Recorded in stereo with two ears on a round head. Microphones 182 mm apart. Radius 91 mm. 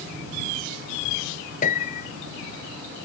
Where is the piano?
40° left (ahead or behind).